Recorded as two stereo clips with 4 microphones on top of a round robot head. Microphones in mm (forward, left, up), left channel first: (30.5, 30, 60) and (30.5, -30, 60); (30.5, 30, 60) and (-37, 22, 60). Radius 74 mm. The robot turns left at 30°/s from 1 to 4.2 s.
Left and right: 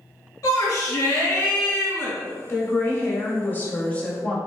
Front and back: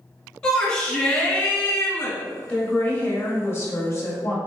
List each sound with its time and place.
0.4 s a shout: 80° left, 1.2 m; by 2.2 s 45° left, 1.2 m
2.5 s a woman speaking: 75° left, 1.1 m; by 4.4 s 25° left, 1.1 m